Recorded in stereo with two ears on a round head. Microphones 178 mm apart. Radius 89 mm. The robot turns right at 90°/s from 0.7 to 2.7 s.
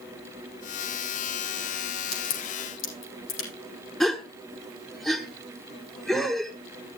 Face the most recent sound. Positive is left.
turn(degrees=0)  # may be behind; listen again after turning